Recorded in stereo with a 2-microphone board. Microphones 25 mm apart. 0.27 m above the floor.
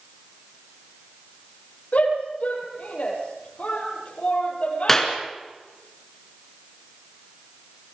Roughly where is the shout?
Left.